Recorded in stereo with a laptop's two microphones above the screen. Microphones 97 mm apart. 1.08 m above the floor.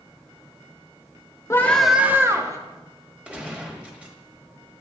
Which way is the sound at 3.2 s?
10° right (ahead or behind).